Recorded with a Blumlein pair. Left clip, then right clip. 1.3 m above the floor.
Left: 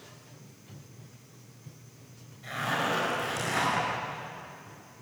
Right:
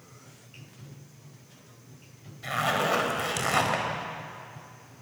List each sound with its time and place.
2.4 s a zipper: 65° right, 5.5 m